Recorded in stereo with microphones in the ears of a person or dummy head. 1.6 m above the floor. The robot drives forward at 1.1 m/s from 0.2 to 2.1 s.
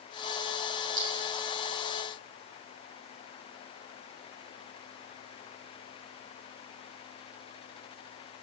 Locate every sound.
1.0 s a clink: 40° right (ahead or behind), 3.5 m; by 1.3 s 35° right (ahead or behind), 4 m